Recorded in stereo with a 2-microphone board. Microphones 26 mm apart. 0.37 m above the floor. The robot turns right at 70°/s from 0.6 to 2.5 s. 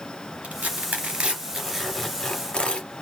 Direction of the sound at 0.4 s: 80° right.